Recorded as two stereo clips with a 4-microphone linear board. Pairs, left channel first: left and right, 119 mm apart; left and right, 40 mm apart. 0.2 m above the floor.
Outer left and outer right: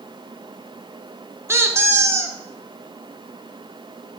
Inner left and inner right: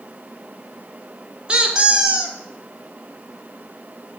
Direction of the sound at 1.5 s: 20° right (ahead or behind).